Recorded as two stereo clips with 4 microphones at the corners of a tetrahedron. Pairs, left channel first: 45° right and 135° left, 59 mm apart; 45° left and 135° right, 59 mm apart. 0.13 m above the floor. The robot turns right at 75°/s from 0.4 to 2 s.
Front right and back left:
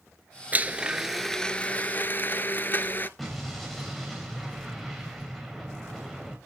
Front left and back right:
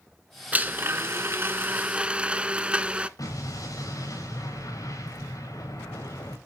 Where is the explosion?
40° left, 8.5 m.